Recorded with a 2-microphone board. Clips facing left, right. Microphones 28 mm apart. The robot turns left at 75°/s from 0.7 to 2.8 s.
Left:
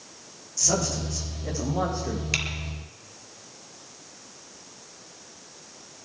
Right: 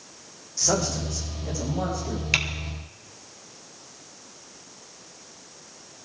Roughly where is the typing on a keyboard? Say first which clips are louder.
Right 5 dB; centre.